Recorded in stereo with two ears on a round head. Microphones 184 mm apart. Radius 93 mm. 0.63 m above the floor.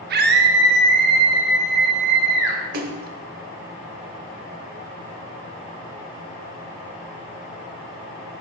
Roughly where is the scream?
Right.